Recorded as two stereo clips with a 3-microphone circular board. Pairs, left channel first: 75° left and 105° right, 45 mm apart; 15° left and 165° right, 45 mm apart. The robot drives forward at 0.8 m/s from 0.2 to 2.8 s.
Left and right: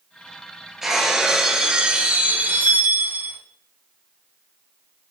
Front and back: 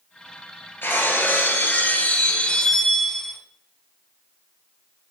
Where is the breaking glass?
20° right, 2 m; by 3.4 s 65° right, 0.9 m.